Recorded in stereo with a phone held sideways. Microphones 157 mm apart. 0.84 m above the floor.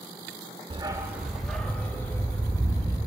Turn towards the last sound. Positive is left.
turn(degrees=20)  # may be behind; listen again after turning